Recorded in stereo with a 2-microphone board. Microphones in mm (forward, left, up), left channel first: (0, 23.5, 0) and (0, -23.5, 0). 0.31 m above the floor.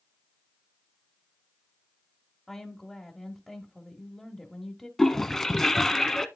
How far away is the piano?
I don't hear a piano.